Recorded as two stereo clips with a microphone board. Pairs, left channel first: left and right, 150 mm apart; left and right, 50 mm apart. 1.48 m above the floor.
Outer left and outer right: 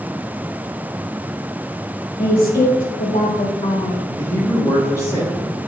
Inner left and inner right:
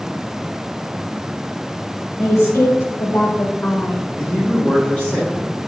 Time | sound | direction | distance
2.2 | a woman speaking | 75° left (ahead or behind) | 1.5 m
4.2 | a man speaking | 25° left (ahead or behind) | 1.9 m